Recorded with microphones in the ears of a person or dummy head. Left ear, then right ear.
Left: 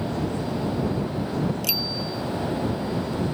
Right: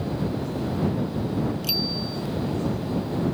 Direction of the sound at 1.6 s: 30° left (ahead or behind).